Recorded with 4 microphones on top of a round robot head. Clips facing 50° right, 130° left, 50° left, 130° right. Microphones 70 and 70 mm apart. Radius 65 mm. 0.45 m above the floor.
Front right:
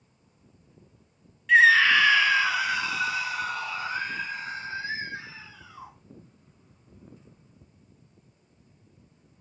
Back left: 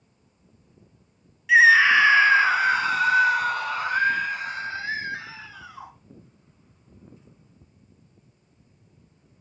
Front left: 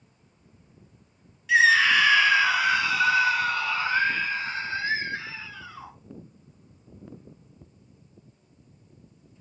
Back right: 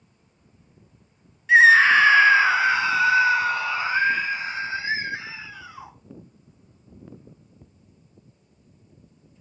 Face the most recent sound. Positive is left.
turn(degrees=150)